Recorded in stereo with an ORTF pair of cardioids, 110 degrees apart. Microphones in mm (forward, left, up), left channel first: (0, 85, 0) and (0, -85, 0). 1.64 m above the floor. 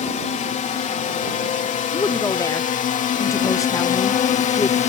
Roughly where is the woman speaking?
Ahead.